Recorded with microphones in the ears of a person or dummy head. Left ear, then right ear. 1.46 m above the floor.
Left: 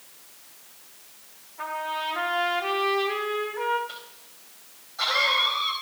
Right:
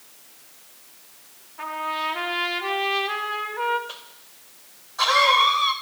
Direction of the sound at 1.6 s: 15° right (ahead or behind).